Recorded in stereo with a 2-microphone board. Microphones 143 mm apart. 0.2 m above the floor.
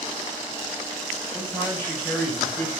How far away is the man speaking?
About 4.5 m.